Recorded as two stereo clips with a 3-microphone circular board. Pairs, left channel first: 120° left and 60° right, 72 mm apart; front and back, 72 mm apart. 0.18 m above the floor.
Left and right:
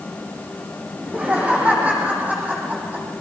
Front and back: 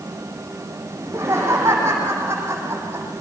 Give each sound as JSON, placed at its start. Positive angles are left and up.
{"t": 1.0, "sound": "laughter", "azimuth_deg": -130, "distance_m": 9.5}